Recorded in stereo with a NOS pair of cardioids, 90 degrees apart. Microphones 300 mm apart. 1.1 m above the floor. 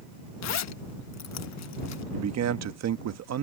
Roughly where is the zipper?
Ahead left.